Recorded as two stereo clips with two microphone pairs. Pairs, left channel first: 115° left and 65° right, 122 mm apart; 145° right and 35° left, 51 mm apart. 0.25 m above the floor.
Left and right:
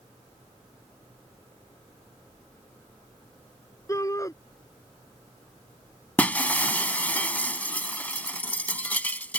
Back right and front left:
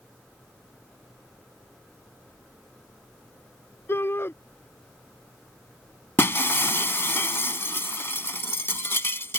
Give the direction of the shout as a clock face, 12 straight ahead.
6 o'clock.